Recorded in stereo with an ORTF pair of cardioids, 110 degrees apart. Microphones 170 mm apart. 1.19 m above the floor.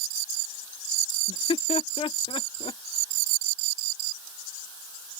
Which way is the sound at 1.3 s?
30° left.